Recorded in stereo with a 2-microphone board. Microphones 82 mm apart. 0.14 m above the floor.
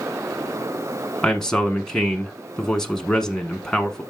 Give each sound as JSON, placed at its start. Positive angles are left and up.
{"t": 1.2, "sound": "a man speaking", "side_deg": 5, "distance_m": 1.1}